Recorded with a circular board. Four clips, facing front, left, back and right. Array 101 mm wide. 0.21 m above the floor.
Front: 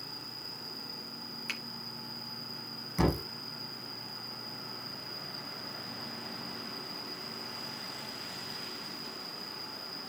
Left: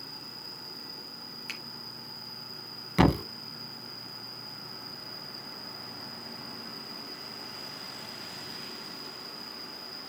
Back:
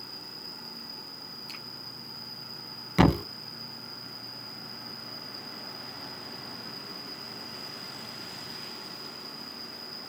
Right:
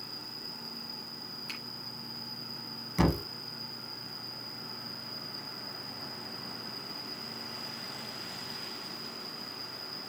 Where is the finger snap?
25° left, 4 m.